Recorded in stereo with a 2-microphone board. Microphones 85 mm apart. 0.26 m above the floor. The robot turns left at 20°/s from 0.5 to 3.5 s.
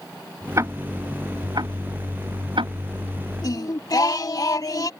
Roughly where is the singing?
Left.